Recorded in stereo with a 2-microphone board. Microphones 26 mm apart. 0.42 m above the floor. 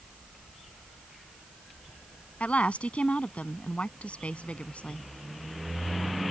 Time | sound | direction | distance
2.4 | a woman speaking | 65° left (ahead or behind) | ?